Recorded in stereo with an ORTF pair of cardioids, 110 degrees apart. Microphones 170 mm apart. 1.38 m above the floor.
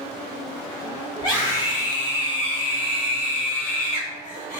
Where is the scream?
25° left, 1.8 m; by 4.6 s 55° left, 3.5 m.